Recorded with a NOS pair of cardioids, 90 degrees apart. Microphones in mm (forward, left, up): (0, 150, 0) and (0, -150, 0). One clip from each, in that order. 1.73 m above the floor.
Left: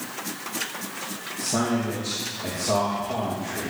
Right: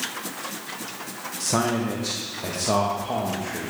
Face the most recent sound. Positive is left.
turn(degrees=-40)